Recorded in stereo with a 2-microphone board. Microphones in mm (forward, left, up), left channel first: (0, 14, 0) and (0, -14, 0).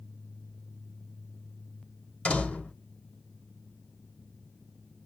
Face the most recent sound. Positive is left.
turn(degrees=55)  # may be behind; listen again after turning